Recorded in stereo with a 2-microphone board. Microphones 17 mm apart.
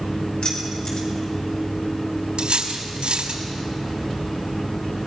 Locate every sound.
0.4 s keys jangling: 60° left (ahead or behind), 5 m
2.4 s cutlery clinking: 75° right (ahead or behind), 3 m